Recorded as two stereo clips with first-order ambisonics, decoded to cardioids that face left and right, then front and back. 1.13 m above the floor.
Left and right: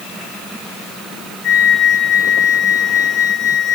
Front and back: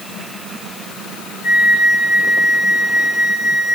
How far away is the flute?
About 1.7 m.